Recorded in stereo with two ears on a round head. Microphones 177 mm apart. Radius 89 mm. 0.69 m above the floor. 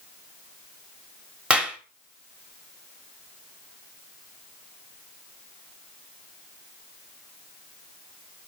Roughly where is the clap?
Centre.